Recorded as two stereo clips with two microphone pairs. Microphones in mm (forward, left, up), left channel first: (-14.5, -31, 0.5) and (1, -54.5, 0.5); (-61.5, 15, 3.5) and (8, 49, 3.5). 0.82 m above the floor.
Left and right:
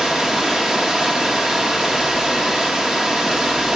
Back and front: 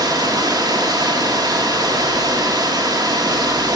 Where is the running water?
10° left, 1.4 m.